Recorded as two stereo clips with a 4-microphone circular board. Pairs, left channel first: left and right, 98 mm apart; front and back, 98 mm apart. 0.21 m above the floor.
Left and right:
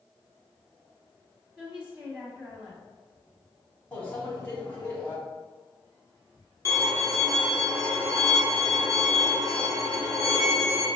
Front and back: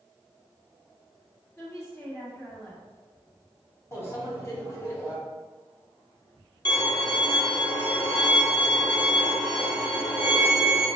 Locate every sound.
1.6 s a woman speaking: 25° right, 1.5 m
3.9 s a microwave: 35° left, 1.5 m
6.7 s a violin: 35° right, 1.3 m